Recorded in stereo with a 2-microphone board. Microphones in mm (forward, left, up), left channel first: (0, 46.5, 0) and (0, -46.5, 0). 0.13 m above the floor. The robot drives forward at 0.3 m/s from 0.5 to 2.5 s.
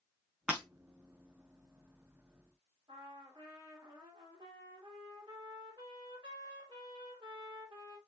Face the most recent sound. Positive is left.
turn(degrees=-60)  # may be behind; listen again after turning